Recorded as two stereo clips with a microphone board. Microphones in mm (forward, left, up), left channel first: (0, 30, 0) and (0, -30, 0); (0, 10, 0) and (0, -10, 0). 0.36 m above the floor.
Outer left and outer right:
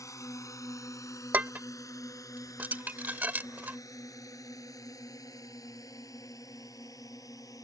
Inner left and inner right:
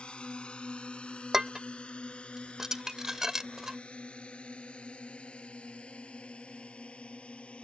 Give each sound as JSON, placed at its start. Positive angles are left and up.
{"t": 0.0, "sound": "a drone", "side_deg": 60}
{"t": 1.3, "sound": "dishes clattering", "side_deg": -30}